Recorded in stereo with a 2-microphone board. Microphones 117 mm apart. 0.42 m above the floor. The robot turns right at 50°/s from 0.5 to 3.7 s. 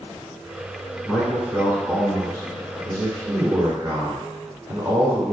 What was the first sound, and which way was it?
A man speaking, 170° left.